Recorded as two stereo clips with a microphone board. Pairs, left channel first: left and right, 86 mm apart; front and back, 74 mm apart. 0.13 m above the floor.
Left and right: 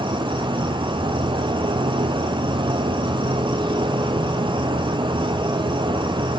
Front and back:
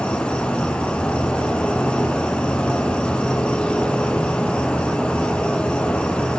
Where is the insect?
75° right, 0.9 m.